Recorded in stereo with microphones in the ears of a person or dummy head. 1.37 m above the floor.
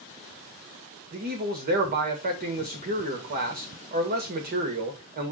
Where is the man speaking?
45° right (ahead or behind), 2 m.